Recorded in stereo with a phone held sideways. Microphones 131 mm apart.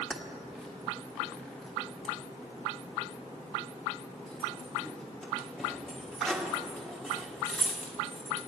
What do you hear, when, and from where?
0.1 s keys jangling: centre (ahead or behind), 1.4 m